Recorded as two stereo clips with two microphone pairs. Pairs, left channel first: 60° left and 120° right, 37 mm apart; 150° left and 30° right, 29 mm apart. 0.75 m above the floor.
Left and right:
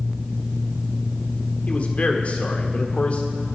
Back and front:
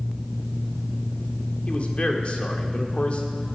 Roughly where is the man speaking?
Left.